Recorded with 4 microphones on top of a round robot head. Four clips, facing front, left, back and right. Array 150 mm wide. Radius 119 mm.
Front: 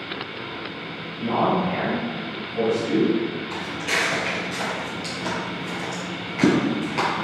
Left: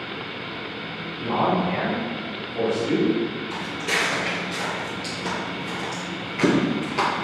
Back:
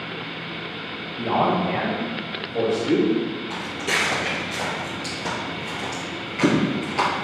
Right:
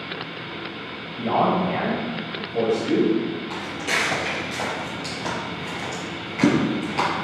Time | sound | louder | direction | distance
1.2 | a man speaking | right 2 dB, back 1 dB | 135° right | 1.2 m
3.5 | footsteps | even, even | 145° right | 1.9 m